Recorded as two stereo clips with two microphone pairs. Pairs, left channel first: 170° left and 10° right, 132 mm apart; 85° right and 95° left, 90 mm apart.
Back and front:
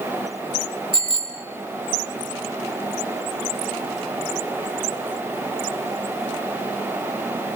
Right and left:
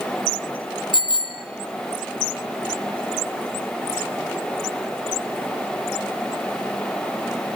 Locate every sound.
0.9 s a bicycle bell: 60° right, 3 m